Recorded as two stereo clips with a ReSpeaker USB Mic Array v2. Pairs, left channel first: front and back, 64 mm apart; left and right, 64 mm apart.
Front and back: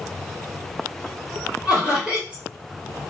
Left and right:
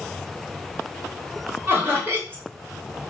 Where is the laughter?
120° right, 1.5 m.